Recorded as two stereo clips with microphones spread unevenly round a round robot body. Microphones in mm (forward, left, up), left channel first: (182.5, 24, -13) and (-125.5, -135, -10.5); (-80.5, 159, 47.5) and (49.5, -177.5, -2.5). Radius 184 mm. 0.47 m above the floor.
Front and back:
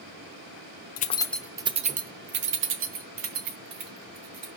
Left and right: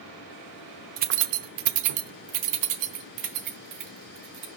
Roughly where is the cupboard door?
I don't hear a cupboard door.